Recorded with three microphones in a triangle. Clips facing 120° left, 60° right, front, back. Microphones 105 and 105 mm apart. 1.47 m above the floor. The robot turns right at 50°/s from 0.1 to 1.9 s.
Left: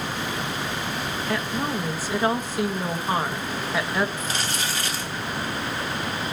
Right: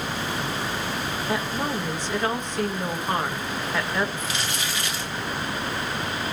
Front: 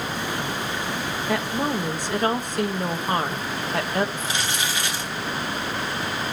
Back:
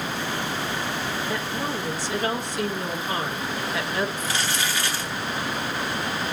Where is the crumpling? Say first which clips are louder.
Left 1 dB, even; 70° left, 2 m.